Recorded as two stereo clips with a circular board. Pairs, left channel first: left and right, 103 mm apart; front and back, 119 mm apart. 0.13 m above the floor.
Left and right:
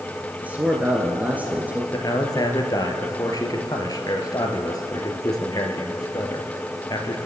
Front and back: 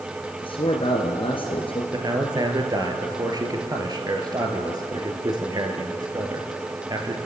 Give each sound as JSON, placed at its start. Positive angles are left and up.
{"t": 0.4, "sound": "a man speaking", "azimuth_deg": -20, "distance_m": 2.0}
{"t": 1.9, "sound": "a man speaking", "azimuth_deg": 130, "distance_m": 2.5}